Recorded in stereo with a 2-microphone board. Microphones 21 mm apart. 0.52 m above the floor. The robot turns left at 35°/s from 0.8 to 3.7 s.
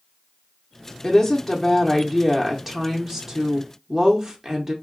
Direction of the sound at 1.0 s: 20° left (ahead or behind).